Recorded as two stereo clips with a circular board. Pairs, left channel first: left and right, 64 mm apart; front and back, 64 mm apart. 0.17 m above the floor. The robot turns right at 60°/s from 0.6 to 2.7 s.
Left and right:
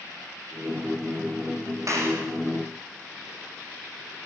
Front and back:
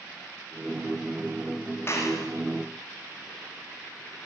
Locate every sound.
1.9 s a clap: 50° right, 8 m; by 2.3 s 25° right, 8 m